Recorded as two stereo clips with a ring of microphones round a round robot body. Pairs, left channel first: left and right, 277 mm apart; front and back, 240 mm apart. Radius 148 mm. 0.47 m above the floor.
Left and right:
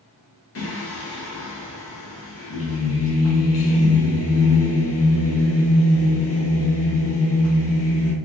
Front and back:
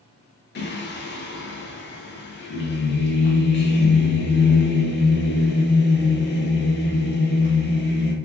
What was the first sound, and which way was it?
Singing, 50° left.